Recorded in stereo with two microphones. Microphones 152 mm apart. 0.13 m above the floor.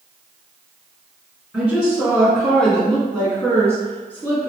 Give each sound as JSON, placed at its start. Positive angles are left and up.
{"t": 1.5, "sound": "a woman speaking", "side_deg": -5, "distance_m": 1.3}